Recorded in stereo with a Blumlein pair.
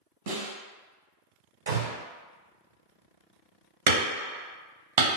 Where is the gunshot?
65° right, 0.9 m.